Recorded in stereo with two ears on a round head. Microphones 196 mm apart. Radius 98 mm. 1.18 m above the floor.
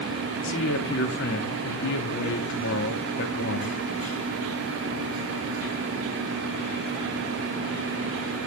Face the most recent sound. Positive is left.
turn(degrees=55)  # may be behind; listen again after turning